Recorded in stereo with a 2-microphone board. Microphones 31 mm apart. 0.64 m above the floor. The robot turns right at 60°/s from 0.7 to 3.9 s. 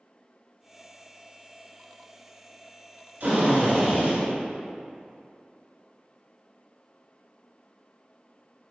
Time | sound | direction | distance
3.2 | a drill | 95° right | 1.9 m